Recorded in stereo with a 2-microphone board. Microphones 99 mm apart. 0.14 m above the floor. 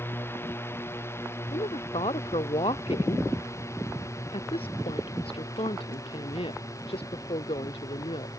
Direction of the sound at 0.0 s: 25° left (ahead or behind).